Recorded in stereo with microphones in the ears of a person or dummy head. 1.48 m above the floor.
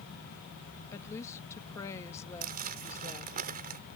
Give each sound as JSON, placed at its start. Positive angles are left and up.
{"t": 0.9, "sound": "a woman speaking", "side_deg": 20}
{"t": 2.4, "sound": "crumpling", "side_deg": -50}